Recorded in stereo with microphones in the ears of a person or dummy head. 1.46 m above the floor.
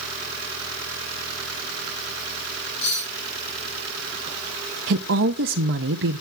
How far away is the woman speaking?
About 0.5 m.